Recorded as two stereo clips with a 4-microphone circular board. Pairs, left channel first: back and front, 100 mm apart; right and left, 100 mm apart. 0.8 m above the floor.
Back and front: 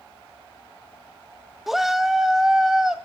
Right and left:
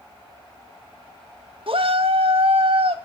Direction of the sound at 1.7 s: 85° left.